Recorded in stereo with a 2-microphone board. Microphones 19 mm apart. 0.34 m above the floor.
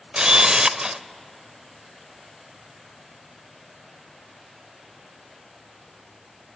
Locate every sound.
0.1 s a camera shutter: 40° right (ahead or behind), 0.5 m